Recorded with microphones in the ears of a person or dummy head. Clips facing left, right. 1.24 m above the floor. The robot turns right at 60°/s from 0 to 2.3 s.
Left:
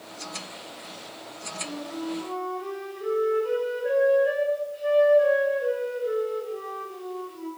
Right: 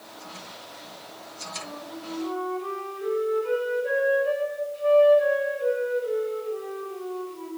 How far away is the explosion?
No explosion in this recording.